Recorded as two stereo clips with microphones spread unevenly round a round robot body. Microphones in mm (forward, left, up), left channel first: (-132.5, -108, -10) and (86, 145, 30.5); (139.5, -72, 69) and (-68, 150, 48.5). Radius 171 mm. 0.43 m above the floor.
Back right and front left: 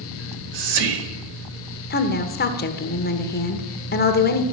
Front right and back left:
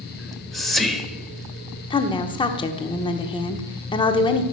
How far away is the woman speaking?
About 1.2 m.